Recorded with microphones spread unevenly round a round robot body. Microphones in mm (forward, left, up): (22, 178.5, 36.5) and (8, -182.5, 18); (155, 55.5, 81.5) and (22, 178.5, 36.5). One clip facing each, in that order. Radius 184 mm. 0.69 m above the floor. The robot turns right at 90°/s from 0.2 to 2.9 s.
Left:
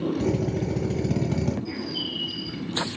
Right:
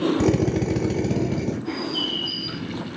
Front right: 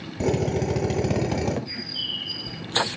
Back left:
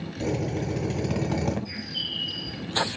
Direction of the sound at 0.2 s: 80° right.